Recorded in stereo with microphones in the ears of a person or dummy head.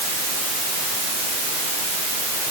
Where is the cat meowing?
No cat meowing in this recording.